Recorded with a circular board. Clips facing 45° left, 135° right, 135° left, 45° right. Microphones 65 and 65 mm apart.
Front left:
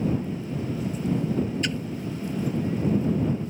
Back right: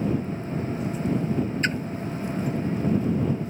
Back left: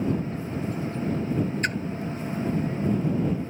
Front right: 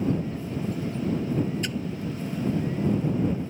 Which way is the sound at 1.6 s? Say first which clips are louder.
Back right 3 dB, back left 4 dB; 175° left.